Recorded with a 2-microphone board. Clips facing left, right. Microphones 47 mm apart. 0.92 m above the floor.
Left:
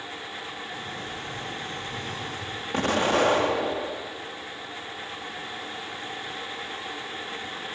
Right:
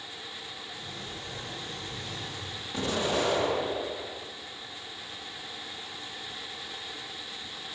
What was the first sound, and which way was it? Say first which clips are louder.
A sliding door: left 6 dB; 70° left (ahead or behind).